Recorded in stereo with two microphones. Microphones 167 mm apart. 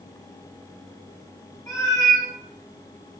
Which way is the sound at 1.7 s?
15° left (ahead or behind).